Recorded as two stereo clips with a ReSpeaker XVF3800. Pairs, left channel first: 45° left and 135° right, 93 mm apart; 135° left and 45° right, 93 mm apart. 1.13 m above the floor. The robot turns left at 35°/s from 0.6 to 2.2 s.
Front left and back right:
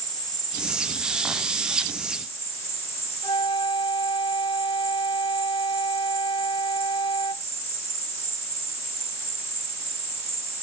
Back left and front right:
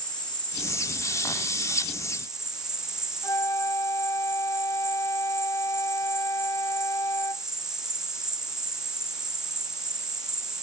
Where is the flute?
80° left.